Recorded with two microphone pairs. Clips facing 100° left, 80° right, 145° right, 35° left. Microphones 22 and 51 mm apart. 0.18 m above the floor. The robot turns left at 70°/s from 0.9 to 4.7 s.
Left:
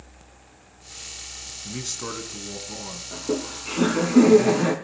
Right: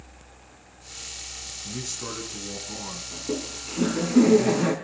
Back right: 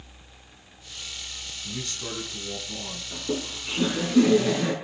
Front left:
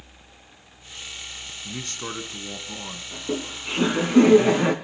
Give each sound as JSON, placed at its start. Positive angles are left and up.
{"t": 1.6, "sound": "a man speaking", "azimuth_deg": 80, "distance_m": 2.0}
{"t": 3.1, "sound": "laughter", "azimuth_deg": 125, "distance_m": 1.5}